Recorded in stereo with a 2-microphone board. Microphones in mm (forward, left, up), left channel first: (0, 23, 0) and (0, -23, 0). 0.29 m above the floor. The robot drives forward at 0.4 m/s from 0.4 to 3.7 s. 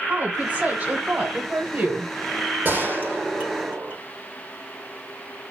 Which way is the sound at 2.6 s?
35° right (ahead or behind).